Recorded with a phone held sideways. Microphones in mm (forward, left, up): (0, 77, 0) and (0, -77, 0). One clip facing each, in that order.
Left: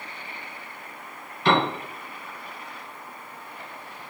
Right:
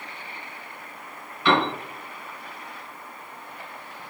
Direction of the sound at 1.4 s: 40° left (ahead or behind).